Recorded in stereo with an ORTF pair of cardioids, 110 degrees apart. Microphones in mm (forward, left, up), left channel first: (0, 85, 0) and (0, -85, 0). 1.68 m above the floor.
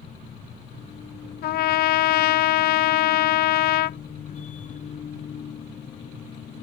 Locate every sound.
0.0 s a machine running: 45° left
1.4 s a trumpet: 65° left